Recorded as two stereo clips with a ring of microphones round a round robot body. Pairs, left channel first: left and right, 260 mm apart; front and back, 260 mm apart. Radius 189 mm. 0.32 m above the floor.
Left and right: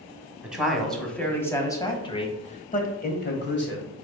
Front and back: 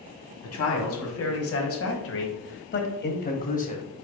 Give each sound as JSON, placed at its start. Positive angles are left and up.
{"t": 0.4, "sound": "a man speaking", "azimuth_deg": -5, "distance_m": 2.0}